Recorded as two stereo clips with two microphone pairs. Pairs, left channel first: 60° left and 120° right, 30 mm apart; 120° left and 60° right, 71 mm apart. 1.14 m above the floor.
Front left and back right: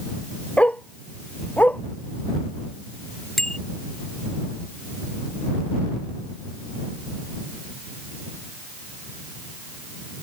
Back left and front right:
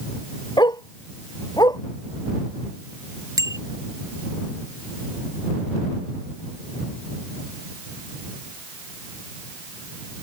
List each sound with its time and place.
0.6 s a dog barking: 105° left; by 1.8 s 95° left
3.4 s a bicycle bell: 20° right